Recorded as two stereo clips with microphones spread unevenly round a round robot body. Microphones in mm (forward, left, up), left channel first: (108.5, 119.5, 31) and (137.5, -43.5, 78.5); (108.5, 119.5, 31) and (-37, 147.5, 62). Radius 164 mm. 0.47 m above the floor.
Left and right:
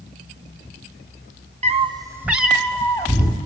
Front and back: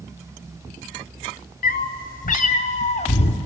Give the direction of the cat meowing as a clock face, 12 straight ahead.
1 o'clock.